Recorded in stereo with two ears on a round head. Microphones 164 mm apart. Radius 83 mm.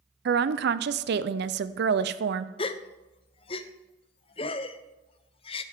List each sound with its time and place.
0.2 s a woman speaking: 60° right (ahead or behind), 0.6 m
2.6 s a gasp: 30° left (ahead or behind), 0.5 m